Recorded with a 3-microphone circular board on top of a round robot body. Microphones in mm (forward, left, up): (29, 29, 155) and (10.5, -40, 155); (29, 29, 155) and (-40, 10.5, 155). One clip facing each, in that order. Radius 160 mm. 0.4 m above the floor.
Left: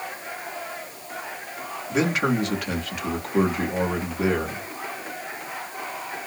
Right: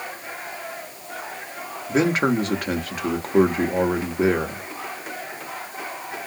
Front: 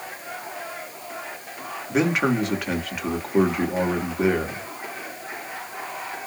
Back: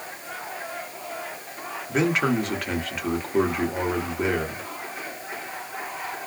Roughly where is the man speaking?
Right.